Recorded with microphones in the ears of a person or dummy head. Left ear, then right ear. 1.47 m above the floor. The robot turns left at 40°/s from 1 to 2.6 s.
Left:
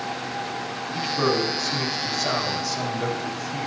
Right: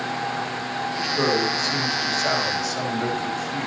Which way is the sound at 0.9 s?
30° right.